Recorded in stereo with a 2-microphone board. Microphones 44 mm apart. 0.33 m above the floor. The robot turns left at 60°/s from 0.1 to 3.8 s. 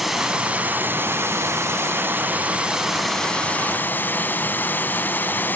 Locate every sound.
0.0 s running water: 5° right, 0.9 m; by 5.6 s 135° left, 0.9 m